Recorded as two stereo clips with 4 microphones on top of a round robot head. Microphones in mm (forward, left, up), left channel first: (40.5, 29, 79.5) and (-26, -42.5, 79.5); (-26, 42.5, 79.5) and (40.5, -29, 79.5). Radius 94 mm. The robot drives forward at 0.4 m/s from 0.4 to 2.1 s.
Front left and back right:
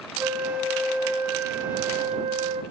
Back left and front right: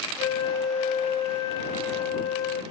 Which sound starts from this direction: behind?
A flute, at 0.2 s.